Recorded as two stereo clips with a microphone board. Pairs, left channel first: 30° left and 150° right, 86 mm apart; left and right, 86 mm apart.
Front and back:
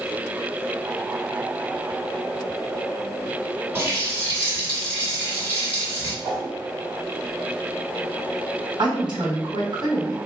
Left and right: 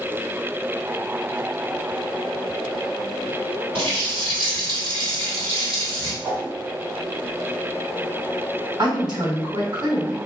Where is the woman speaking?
125° right, 1.8 m.